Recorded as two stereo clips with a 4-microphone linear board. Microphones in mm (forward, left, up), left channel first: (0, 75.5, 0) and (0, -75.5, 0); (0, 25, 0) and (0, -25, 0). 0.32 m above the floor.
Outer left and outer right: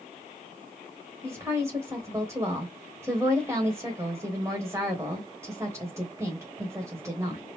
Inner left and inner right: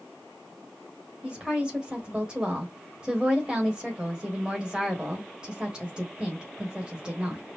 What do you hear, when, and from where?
1.2 s a woman speaking: 20° right (ahead or behind), 1.2 m